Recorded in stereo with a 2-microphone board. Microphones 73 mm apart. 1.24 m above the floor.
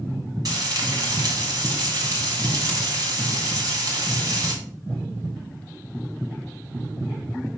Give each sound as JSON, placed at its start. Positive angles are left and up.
{"t": 0.5, "sound": "frying", "side_deg": -60, "distance_m": 4.0}